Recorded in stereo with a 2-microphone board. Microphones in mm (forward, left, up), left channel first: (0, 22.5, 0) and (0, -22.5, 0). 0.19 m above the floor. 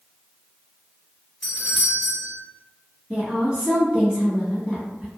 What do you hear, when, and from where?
1.4 s a doorbell: 15° left (ahead or behind), 1.6 m
3.1 s a woman speaking: 20° right (ahead or behind), 1.4 m